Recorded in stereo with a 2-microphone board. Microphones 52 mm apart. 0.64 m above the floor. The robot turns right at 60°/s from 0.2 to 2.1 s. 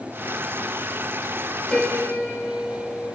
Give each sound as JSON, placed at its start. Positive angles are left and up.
{"t": 1.7, "sound": "a piano", "side_deg": 15, "distance_m": 1.1}